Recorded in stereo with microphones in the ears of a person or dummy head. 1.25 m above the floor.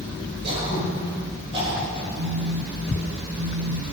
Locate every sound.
0.4 s throat clearing: 30° right (ahead or behind), 5.5 m
2.2 s a phone buzzing: 35° right (ahead or behind), 1.1 m